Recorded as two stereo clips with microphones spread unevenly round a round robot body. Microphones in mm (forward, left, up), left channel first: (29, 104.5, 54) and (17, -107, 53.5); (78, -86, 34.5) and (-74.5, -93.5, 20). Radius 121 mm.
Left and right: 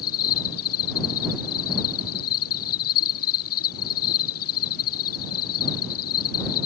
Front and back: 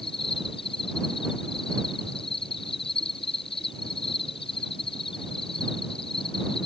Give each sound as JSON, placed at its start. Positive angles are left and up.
{"t": 0.0, "sound": "an insect", "azimuth_deg": 70}